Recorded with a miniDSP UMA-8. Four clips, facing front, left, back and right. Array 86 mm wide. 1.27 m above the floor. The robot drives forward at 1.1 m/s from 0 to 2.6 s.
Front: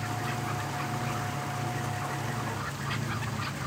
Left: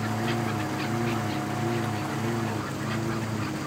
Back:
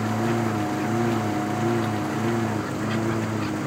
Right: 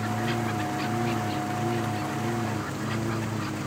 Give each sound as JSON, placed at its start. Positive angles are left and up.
{"t": 0.0, "sound": "a lawn mower", "azimuth_deg": 180}